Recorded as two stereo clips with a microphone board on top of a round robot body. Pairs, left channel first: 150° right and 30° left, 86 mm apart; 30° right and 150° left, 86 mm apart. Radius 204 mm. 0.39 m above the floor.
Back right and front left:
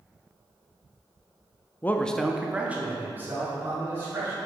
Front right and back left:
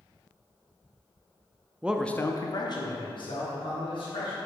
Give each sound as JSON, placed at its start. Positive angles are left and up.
{"t": 1.8, "sound": "a man speaking", "azimuth_deg": -165, "distance_m": 0.8}